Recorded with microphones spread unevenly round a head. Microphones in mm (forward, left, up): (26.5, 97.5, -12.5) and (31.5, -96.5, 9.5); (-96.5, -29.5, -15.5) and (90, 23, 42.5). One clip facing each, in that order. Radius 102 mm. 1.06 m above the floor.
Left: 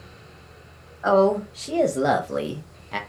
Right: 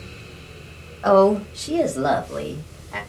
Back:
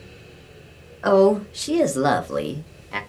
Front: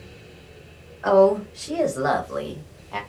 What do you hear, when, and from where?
1.0 s a woman speaking: 145° right, 0.8 m; by 3.0 s 140° left, 0.9 m